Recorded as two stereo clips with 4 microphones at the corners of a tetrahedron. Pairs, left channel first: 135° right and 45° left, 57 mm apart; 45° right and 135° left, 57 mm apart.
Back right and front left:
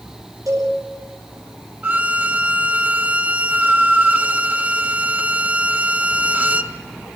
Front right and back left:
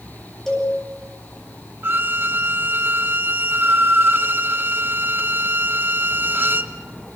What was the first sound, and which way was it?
A cowbell, 40° left.